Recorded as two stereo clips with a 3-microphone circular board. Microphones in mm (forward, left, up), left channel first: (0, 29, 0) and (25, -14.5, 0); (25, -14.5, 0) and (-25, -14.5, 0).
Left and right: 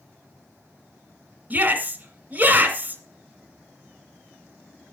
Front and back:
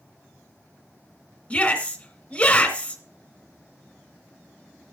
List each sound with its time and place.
1.5 s a shout: 50° right, 1.9 m